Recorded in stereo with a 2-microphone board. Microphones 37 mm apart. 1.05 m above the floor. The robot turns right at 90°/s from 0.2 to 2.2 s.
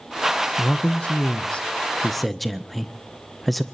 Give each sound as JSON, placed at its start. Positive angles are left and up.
{"t": 0.6, "sound": "a man speaking", "azimuth_deg": 30, "distance_m": 0.5}